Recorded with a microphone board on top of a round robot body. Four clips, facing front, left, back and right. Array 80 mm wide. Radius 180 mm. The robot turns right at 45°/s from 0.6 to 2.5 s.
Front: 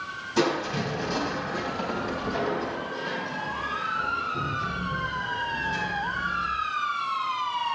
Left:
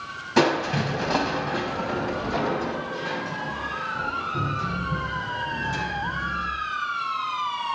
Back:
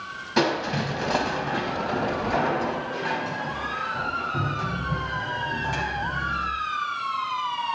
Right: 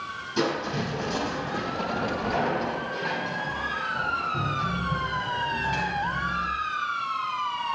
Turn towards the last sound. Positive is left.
turn(degrees=-155)